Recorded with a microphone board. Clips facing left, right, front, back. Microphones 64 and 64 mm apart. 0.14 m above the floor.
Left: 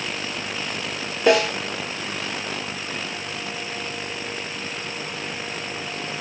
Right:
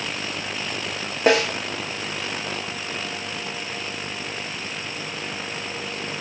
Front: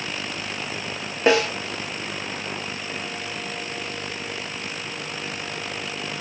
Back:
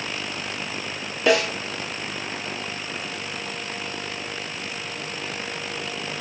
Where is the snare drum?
55° right, 1.4 m.